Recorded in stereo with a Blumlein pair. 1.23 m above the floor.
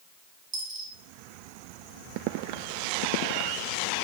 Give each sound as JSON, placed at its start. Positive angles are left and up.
{"t": 0.5, "sound": "a dropped coin", "azimuth_deg": -40, "distance_m": 1.6}